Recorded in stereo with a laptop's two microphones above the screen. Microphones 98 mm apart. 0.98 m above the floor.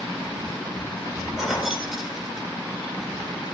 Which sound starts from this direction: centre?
Keys jangling, at 1.4 s.